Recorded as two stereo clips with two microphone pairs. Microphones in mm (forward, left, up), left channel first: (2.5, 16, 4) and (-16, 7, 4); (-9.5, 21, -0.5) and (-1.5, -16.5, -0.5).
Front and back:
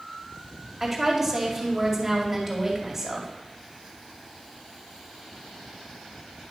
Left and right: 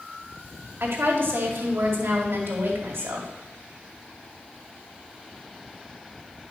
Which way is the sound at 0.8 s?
75° right.